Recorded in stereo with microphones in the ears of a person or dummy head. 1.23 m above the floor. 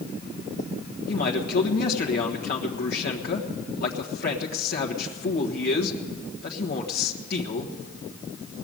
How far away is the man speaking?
About 1.4 m.